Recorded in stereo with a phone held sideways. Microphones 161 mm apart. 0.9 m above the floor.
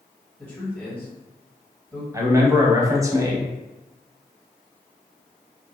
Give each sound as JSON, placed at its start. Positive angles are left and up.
{"t": 0.4, "sound": "a man speaking", "side_deg": 10, "distance_m": 1.6}
{"t": 2.1, "sound": "a man speaking", "side_deg": -20, "distance_m": 0.7}